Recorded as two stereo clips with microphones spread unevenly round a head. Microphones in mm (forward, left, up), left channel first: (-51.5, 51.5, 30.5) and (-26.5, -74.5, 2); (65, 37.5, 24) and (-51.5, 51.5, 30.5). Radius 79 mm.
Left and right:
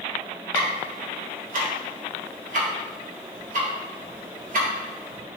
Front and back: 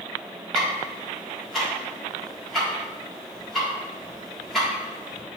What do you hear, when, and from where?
0.5 s ticking: 95° right, 1.8 m